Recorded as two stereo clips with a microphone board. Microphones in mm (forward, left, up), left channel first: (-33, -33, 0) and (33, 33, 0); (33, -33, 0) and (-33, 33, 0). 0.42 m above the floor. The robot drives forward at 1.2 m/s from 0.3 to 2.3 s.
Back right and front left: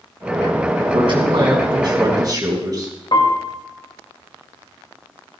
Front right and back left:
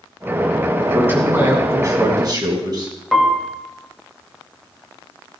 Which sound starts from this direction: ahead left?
A man speaking, at 0.9 s.